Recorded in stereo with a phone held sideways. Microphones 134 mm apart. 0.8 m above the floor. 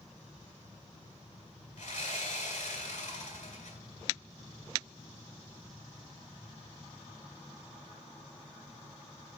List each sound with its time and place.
1.8 s sawing: 70° left (ahead or behind), 1.9 m